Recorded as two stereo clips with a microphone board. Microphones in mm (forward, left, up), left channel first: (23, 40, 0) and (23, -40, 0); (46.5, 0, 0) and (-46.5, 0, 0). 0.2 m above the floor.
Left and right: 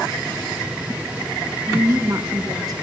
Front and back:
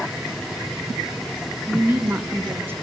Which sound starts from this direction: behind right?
A woman speaking, at 1.7 s.